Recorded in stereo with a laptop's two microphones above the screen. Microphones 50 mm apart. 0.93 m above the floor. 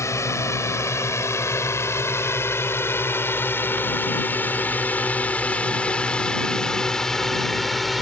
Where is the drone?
65° left (ahead or behind); by 8.0 s centre (ahead or behind).